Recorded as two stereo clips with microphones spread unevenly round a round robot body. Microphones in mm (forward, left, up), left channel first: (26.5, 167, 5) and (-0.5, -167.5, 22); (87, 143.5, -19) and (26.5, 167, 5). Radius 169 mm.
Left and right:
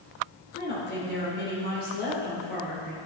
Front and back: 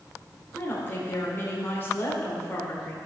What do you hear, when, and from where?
0.6 s a woman speaking: 30° left, 2.5 m